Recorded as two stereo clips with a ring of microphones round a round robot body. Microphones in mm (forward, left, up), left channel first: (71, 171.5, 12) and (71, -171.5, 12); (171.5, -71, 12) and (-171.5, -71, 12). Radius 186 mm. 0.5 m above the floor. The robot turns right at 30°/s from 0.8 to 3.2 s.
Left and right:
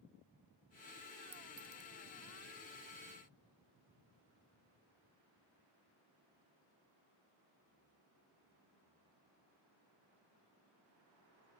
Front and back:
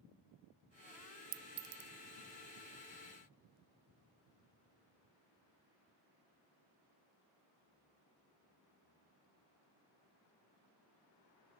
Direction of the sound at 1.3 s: 165° right.